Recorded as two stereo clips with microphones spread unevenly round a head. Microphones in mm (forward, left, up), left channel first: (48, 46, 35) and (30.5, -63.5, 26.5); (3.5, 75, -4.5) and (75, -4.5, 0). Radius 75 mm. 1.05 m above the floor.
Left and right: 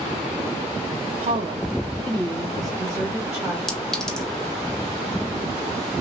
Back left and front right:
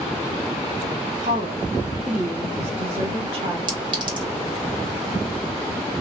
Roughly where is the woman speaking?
Right.